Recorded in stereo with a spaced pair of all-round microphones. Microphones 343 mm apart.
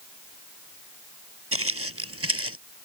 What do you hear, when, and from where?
1.5 s footsteps: 45° right (ahead or behind); by 2.6 s 40° right (ahead or behind)